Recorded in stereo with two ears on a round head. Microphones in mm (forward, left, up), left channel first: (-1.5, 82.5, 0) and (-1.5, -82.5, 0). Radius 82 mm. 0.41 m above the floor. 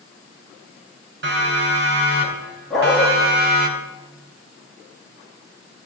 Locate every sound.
1.2 s a siren: 65° right (ahead or behind), 6 m; by 3.7 s 60° right (ahead or behind), 2.5 m
2.7 s a dog barking: centre (ahead or behind), 9.5 m